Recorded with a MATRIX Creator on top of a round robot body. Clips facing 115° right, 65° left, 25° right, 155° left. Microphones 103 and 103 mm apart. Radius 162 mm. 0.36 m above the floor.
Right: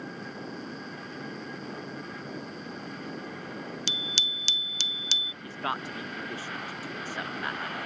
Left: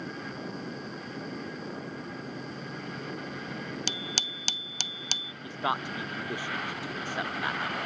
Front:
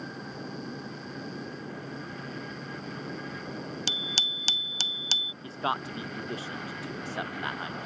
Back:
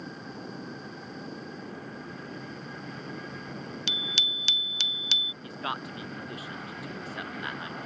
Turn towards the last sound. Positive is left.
turn(degrees=10)